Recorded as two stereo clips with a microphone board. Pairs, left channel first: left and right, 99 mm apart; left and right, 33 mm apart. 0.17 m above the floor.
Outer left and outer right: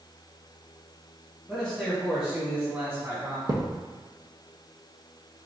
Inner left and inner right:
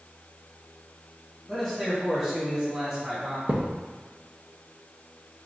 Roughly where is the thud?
Right.